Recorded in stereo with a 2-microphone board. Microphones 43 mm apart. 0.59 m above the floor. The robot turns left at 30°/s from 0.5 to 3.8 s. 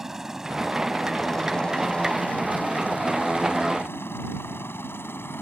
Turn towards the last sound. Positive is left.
turn(degrees=65)  # may be behind; listen again after turning